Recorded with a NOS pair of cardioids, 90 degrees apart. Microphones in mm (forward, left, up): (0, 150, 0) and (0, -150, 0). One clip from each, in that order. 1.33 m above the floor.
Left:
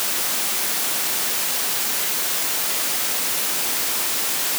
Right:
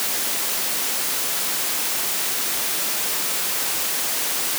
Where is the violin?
No violin in this recording.